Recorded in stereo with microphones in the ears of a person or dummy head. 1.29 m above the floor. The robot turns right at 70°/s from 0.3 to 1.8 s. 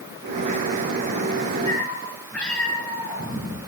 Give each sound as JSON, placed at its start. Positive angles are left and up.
{"t": 1.7, "sound": "a cat meowing", "side_deg": 10, "distance_m": 6.5}